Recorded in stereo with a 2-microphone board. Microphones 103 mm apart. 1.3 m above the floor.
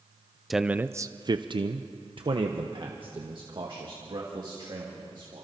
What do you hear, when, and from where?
0.5 s a man speaking: centre (ahead or behind), 0.6 m; by 5.5 s 50° right (ahead or behind), 3.5 m